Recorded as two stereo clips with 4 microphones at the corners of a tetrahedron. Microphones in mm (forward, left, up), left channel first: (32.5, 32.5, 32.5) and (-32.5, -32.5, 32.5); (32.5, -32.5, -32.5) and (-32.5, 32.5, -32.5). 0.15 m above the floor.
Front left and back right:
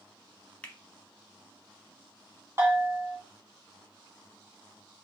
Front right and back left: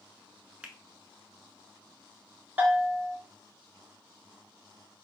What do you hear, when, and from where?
0.6 s a finger snap: 95° left, 0.8 m
2.6 s a bell: 170° right, 1.6 m